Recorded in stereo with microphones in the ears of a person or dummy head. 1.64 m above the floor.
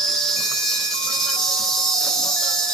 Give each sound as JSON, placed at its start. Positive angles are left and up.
{"t": 0.0, "sound": "an insect", "side_deg": 5, "distance_m": 2.0}